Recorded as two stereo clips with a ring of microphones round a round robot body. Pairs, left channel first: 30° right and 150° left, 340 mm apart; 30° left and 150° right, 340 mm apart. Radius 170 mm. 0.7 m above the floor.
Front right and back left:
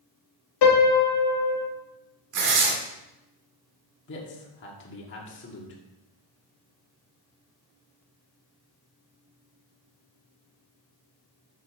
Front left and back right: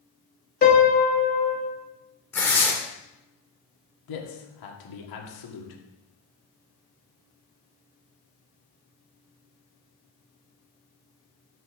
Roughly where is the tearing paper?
Behind left.